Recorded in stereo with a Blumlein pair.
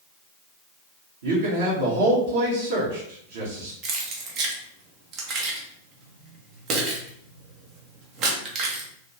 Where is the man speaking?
60° right, 1.5 m.